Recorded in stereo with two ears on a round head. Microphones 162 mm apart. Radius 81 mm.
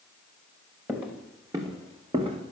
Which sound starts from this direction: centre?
Footsteps, at 0.9 s.